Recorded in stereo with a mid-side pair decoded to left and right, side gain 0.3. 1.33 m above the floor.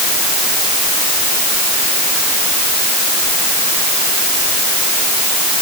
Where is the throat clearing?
I don't hear throat clearing.